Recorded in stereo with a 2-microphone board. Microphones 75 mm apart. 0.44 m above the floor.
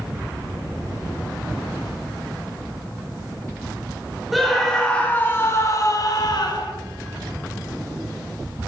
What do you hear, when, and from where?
4.3 s a scream: centre (ahead or behind), 1.4 m; by 6.7 s 55° left (ahead or behind), 1.6 m